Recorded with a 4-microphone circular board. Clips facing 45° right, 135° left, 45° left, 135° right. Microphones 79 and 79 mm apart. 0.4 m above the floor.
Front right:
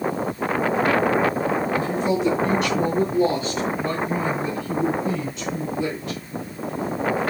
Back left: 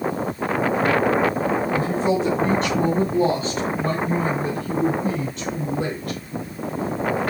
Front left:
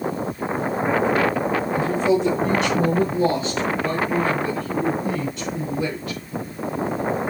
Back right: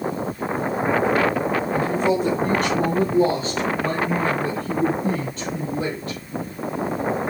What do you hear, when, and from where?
1.7 s a woman speaking: 170° right, 3 m; by 6.2 s 175° left, 5 m